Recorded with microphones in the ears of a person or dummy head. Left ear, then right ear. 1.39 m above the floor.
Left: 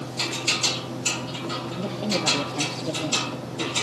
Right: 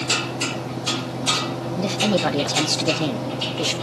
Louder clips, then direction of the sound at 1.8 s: Right 8 dB; 45° right (ahead or behind).